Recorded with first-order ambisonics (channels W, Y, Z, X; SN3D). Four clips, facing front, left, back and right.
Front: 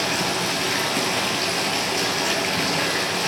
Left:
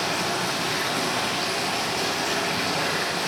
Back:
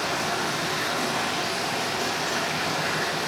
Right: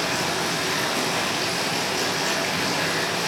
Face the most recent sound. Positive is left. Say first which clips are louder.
# right 1 dB, front 3 dB
turn(degrees=-15)